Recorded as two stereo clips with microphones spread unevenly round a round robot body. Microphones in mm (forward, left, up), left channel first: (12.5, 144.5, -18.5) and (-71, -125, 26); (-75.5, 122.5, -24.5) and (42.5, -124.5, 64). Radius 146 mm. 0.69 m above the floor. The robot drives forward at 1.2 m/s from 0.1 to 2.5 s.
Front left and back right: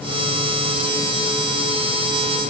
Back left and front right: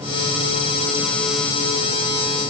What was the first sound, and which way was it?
Only background noise.